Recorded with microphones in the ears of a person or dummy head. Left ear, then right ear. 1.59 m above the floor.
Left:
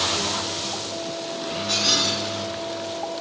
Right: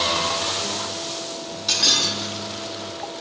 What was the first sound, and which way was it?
Breaking glass, 55° right (ahead or behind).